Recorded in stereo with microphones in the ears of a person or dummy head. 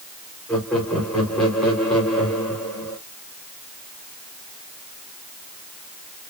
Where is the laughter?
10° left (ahead or behind), 3 m.